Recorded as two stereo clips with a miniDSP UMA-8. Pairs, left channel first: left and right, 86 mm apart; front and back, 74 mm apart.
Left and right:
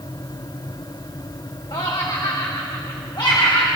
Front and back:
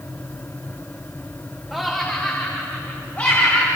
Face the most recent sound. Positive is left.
turn(degrees=60)